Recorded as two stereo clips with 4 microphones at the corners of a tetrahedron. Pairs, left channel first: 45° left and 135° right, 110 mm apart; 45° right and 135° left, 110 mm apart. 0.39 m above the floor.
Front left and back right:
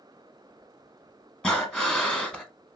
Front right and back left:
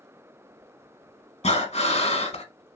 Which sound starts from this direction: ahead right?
Breathing, at 1.4 s.